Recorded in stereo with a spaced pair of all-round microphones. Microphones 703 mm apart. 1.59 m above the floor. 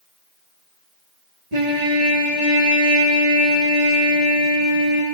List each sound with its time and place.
1.5 s a trumpet: 65° right (ahead or behind), 1.7 m